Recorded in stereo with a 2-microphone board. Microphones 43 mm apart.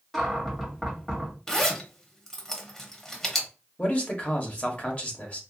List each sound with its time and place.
0.1 s a cupboard door: 5° left (ahead or behind), 1.4 m
1.5 s a zipper: 15° left (ahead or behind), 0.9 m
3.8 s a man speaking: 30° left (ahead or behind), 1.0 m